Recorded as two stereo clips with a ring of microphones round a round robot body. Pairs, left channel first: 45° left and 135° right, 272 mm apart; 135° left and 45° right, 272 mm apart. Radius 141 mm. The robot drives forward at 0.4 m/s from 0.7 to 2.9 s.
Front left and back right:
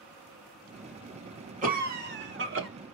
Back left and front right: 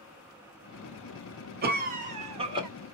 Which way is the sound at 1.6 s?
85° right.